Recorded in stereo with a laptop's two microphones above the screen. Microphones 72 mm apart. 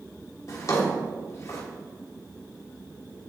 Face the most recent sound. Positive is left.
turn(degrees=45)  # may be behind; listen again after turning